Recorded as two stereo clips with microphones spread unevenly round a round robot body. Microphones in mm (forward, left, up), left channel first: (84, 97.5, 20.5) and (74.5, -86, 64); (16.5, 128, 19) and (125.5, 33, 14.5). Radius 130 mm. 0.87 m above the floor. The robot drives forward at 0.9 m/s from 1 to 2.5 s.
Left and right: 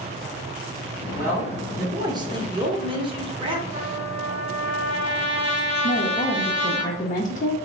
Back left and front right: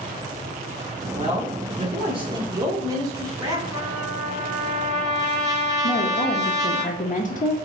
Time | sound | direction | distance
1.1 | a man speaking | 10° right | 1.8 m
3.7 | a trumpet | 125° right | 1.0 m
5.8 | a woman speaking | 125° left | 0.6 m